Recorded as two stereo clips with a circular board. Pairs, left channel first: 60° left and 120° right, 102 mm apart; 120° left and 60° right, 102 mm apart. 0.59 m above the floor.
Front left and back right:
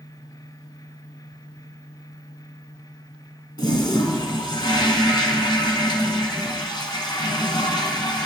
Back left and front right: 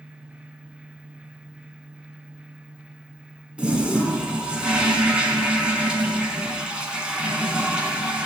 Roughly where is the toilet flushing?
Ahead.